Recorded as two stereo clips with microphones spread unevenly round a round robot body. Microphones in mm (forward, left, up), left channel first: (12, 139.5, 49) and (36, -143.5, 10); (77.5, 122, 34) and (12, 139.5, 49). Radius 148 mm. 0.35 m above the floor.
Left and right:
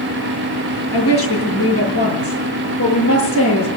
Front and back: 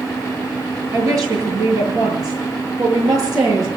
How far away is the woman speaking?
About 8 m.